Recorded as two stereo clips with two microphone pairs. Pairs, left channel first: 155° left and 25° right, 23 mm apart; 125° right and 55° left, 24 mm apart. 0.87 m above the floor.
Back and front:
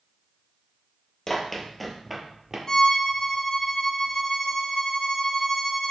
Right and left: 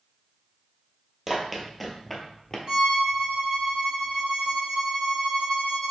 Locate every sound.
1.3 s running footsteps: 120° left, 1.0 m; by 2.6 s 65° right, 0.9 m
2.7 s a violin: 100° left, 0.9 m